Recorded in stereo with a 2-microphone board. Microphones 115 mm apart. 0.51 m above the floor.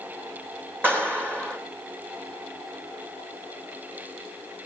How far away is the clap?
About 8 m.